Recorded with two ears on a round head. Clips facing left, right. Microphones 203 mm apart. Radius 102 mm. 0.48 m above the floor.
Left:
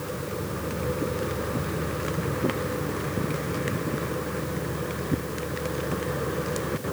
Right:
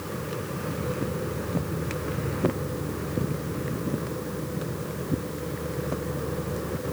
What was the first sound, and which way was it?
Only background noise.